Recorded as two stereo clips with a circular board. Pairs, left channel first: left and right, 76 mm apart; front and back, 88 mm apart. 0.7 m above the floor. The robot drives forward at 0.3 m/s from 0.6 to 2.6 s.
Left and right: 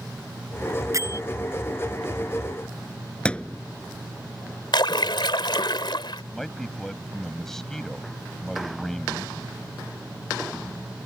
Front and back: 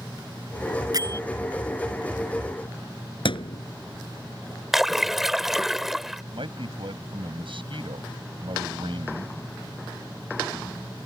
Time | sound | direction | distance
0.9 | a bell | 135° right | ?
3.2 | a thud | 15° left | ?
4.7 | a splash | 95° left | ?
6.3 | a man speaking | 175° left | ?